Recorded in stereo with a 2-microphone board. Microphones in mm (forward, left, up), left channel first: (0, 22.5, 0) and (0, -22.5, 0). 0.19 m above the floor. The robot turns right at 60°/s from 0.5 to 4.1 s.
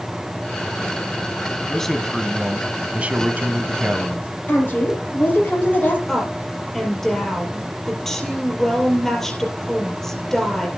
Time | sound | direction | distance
1.7 | a man speaking | 160° left | 1.2 m
4.5 | a woman speaking | 40° left (ahead or behind) | 6 m
6.1 | a woman speaking | 5° left (ahead or behind) | 4.5 m